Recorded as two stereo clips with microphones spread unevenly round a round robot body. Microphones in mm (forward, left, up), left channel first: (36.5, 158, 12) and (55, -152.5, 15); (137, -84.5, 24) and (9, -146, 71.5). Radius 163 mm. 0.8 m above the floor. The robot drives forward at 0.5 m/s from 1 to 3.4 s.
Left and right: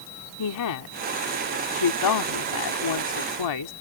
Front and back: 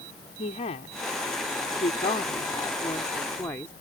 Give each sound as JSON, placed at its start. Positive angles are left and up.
{"t": 0.4, "sound": "a woman speaking", "azimuth_deg": 70}